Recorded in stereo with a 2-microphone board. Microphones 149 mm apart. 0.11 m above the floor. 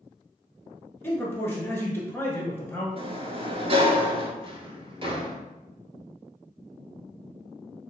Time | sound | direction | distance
1.0 | a man speaking | 15° left (ahead or behind) | 1.2 m
3.0 | a sliding door | 40° right (ahead or behind) | 0.5 m
4.4 | a drawer | 40° right (ahead or behind) | 0.7 m